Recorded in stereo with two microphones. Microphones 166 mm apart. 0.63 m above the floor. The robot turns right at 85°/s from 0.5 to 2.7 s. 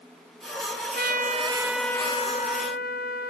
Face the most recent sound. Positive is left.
turn(degrees=75)